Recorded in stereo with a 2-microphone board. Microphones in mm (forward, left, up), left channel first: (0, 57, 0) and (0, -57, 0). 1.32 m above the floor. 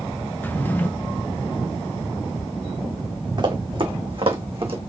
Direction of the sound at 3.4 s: 45° right (ahead or behind).